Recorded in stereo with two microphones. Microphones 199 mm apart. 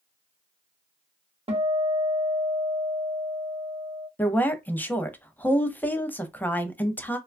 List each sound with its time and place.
1.5 s a guitar: 30° right (ahead or behind), 0.6 m
4.2 s a woman speaking: 10° left (ahead or behind), 0.5 m